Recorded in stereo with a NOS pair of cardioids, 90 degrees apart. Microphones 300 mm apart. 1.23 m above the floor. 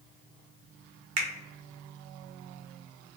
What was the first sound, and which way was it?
A finger snap, 60° right.